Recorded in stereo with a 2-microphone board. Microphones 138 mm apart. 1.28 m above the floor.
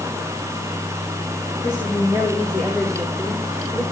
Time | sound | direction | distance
1.6 | a woman speaking | 5° right (ahead or behind) | 5 m